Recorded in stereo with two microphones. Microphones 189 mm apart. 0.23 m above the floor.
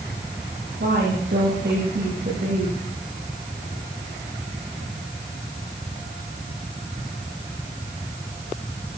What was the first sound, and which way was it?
A woman speaking, 65° right (ahead or behind).